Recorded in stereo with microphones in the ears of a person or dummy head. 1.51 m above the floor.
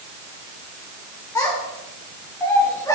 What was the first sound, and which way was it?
A child speaking, 15° left (ahead or behind).